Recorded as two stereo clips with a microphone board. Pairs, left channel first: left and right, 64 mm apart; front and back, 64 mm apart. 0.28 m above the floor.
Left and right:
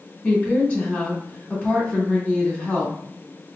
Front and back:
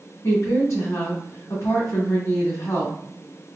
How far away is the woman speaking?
About 1.6 m.